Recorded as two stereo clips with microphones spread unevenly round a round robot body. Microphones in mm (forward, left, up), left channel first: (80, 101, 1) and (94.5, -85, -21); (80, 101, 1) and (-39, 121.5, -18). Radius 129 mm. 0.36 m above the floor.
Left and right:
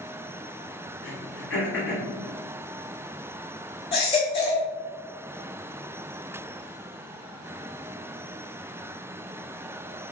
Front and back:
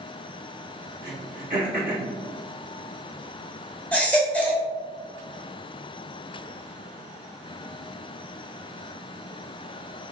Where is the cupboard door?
I don't hear a cupboard door.